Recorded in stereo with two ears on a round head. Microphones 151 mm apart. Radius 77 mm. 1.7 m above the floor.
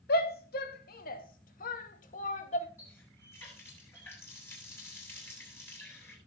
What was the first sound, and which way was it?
A shout, 70° left (ahead or behind).